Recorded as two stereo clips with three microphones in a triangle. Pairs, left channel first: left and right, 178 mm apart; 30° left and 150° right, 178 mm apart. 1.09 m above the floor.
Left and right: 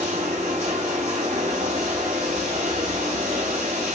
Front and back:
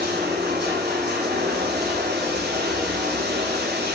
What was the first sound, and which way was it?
Running water, 140° right.